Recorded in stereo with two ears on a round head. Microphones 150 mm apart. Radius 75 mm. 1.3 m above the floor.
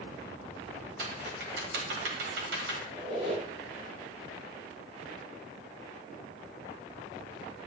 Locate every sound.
1.0 s typing on a keyboard: 70° right (ahead or behind), 1.5 m
2.9 s a squeak: 35° right (ahead or behind), 2.0 m